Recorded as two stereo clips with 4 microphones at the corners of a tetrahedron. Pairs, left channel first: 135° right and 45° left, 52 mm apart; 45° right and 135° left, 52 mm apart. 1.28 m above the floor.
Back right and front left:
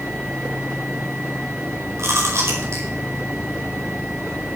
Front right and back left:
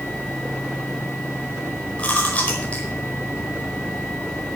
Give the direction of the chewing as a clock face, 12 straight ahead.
11 o'clock.